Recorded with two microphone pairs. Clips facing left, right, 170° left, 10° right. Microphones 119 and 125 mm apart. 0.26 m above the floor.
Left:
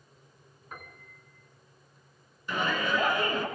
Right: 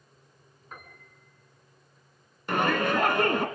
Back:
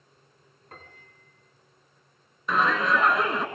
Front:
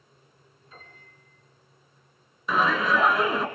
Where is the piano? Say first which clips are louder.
Left 1 dB, back 2 dB; straight behind, 3.5 m.